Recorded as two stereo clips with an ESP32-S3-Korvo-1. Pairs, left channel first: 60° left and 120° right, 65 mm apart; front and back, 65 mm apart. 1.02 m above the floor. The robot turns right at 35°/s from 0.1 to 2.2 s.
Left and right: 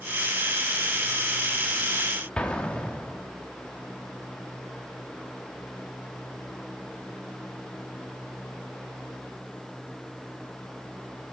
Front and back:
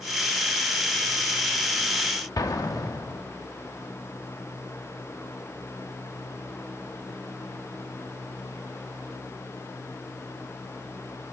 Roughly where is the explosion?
Ahead.